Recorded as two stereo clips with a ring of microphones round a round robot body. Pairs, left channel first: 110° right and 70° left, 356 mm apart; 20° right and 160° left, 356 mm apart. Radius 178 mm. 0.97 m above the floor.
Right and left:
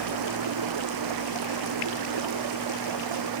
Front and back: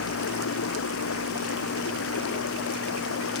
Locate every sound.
0.0 s running water: 35° left